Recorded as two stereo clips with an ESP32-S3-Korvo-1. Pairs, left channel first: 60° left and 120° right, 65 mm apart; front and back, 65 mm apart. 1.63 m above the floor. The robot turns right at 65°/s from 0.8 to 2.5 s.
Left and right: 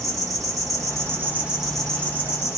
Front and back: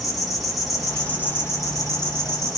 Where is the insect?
90° right, 0.7 m; by 2.6 s 20° left, 0.7 m.